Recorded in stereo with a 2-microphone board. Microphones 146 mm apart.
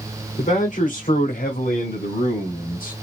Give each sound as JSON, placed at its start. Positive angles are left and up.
{"t": 0.4, "sound": "a man speaking", "side_deg": 55, "distance_m": 1.4}